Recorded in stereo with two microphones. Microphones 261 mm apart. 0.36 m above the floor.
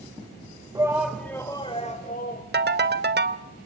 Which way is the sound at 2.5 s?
40° right (ahead or behind).